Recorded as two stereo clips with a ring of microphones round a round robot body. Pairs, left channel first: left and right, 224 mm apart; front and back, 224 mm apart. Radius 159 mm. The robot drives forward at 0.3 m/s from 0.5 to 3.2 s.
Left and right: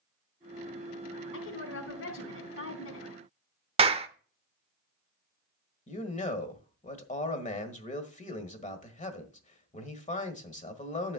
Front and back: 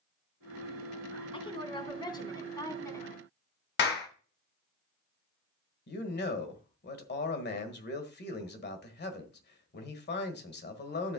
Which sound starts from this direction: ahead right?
A clap, at 3.8 s.